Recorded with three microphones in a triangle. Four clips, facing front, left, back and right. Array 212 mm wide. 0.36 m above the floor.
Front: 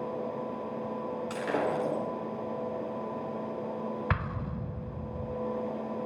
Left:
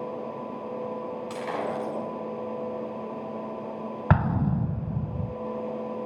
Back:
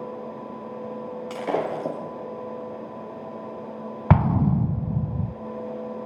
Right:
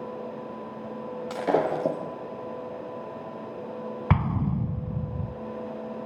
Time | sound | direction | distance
1.3 | breaking glass | 115° right | 7.5 m
4.1 | an explosion | 170° left | 0.5 m